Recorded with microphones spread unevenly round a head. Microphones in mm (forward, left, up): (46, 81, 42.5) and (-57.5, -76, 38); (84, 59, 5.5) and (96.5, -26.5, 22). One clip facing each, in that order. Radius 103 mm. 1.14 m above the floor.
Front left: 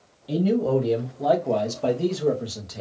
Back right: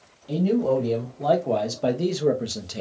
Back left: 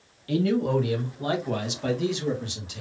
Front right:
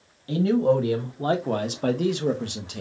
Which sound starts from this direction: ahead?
A man speaking, at 0.3 s.